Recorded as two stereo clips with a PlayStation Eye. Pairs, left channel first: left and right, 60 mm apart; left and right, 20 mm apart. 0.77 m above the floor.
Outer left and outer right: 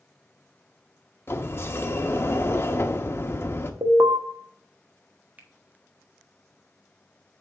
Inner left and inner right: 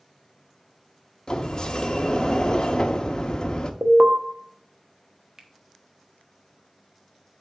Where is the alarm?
65° right (ahead or behind), 1.1 m.